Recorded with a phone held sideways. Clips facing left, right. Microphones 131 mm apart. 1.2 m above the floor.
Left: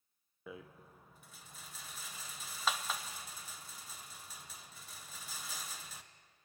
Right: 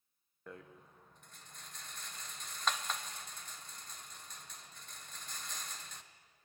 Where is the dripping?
No dripping in this recording.